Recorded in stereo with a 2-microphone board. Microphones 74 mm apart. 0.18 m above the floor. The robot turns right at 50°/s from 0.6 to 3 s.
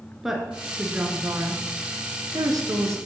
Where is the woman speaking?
5° right (ahead or behind), 2.5 m; by 3.0 s 45° right (ahead or behind), 2.5 m.